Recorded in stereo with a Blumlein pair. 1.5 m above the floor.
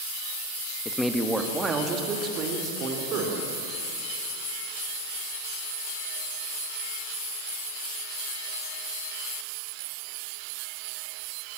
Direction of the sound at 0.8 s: 10° left.